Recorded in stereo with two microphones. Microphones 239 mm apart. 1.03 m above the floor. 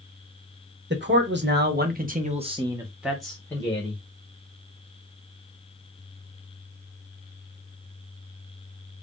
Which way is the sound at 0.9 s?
50° right (ahead or behind).